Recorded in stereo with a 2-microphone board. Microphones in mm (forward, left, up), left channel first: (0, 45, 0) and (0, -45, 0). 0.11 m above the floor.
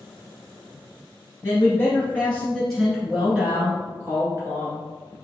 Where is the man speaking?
25° left (ahead or behind), 1.6 m; by 4.8 s 35° right (ahead or behind), 1.7 m.